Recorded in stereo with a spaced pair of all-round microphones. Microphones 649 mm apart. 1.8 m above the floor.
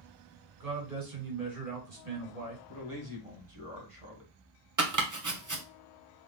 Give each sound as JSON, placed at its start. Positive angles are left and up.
{"t": 0.6, "sound": "a man speaking", "side_deg": -65, "distance_m": 2.5}
{"t": 2.7, "sound": "a man speaking", "side_deg": -50, "distance_m": 1.8}
{"t": 4.8, "sound": "chopping", "side_deg": -25, "distance_m": 0.9}